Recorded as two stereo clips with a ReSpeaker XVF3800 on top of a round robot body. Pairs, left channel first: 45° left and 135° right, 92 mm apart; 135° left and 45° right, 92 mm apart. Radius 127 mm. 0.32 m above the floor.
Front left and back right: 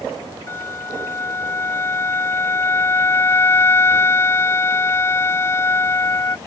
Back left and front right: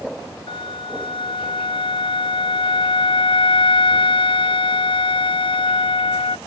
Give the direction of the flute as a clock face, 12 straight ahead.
8 o'clock.